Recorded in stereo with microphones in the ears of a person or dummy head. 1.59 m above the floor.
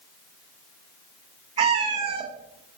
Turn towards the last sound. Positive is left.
turn(degrees=-35)  # may be behind; listen again after turning